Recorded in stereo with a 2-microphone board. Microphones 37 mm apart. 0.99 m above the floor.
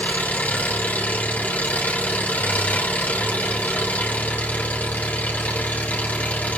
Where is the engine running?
45° left (ahead or behind), 3.5 m.